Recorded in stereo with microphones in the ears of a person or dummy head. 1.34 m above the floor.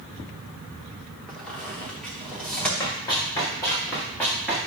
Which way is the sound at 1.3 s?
5° left (ahead or behind).